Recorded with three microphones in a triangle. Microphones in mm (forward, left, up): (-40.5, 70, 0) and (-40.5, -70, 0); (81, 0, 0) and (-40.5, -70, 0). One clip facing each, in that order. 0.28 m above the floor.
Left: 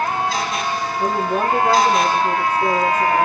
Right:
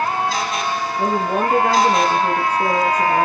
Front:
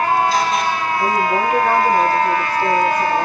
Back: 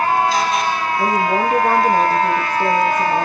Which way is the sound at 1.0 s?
105° right.